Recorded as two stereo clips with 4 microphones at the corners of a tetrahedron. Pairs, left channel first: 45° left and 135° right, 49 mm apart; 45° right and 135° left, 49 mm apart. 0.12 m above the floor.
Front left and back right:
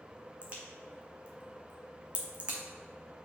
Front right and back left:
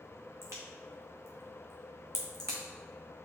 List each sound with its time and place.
0.4 s a crack: 160° left, 1.3 m